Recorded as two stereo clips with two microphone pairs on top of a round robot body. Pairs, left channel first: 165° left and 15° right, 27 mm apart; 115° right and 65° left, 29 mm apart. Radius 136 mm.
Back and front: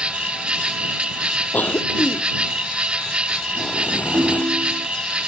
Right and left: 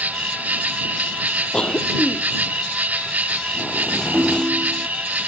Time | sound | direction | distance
0.0 | an insect | 40° left | ?
1.5 | a cough | 175° right | ?
4.1 | a ringtone | 5° left | ?